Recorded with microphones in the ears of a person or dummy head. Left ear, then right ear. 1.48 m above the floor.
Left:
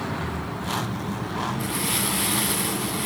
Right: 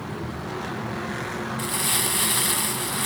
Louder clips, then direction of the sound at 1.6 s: Right 1 dB; 45° right (ahead or behind).